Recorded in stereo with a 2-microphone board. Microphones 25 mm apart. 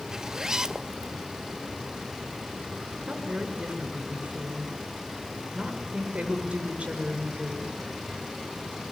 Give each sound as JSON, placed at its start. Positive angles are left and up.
{"t": 0.1, "sound": "a zipper", "side_deg": -20, "distance_m": 0.7}
{"t": 3.1, "sound": "a woman speaking", "side_deg": -50, "distance_m": 7.0}